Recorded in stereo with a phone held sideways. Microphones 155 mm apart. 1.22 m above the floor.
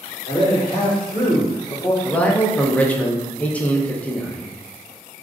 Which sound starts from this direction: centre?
A man speaking, at 2.0 s.